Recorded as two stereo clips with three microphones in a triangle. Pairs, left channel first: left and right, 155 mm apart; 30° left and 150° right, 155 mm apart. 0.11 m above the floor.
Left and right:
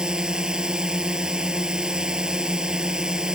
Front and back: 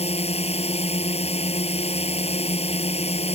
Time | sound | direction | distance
0.0 | a drone | 5° right | ?